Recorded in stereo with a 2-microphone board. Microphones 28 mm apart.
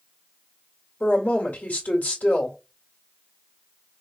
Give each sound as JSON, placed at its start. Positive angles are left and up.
{"t": 1.0, "sound": "a woman speaking", "side_deg": 65, "distance_m": 2.0}